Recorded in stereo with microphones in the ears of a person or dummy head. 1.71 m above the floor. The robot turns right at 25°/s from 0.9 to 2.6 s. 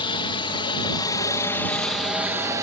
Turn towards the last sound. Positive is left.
turn(degrees=-15)  # may be behind; listen again after turning